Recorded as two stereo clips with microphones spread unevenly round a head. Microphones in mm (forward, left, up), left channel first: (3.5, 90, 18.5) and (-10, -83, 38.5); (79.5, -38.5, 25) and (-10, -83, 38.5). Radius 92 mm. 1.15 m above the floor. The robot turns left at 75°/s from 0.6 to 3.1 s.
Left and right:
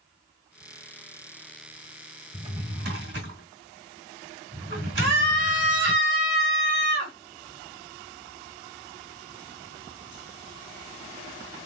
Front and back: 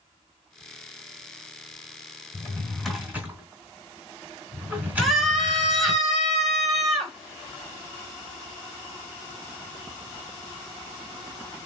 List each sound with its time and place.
2.3 s a drawer: 30° right, 1.7 m; by 6.0 s 85° right, 1.7 m
5.0 s a scream: 60° right, 1.6 m